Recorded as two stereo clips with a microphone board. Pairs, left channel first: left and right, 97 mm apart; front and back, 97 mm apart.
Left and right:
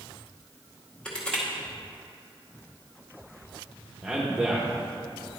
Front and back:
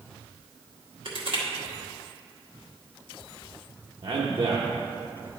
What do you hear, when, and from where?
1.1 s crushing: 165° left, 1.9 m
4.0 s a man speaking: 175° right, 1.0 m